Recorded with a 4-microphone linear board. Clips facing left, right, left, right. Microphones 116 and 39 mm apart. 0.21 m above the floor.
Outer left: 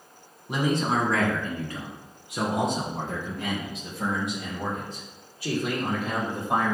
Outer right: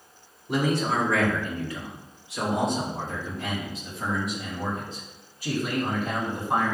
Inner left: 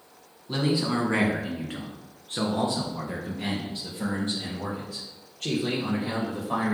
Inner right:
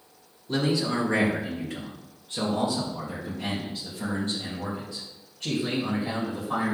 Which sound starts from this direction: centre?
A man speaking, at 0.5 s.